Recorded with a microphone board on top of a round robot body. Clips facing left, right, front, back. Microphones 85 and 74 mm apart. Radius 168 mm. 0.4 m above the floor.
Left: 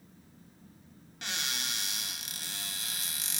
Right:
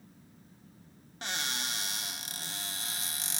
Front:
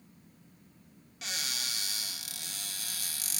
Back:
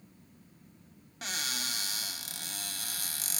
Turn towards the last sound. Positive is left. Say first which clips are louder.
# right 2 dB, back 2 dB
turn(degrees=-135)